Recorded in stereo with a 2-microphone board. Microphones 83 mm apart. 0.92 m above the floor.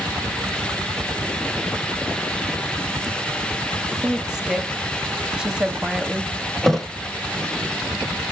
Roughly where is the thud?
Centre.